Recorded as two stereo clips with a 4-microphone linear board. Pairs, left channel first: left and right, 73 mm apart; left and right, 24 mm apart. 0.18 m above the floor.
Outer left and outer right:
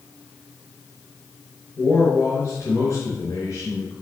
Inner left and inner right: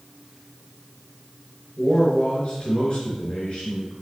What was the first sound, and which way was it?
A man speaking, 45° left (ahead or behind).